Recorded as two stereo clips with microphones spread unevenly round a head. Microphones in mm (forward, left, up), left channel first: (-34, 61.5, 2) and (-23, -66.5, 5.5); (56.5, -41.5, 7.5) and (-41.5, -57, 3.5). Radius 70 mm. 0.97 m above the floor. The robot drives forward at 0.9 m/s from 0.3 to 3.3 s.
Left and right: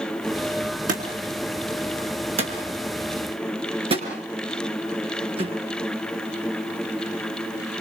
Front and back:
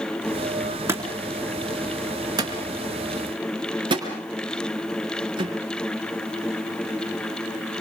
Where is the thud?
105° right, 4 m; by 5.5 s 130° right, 5 m.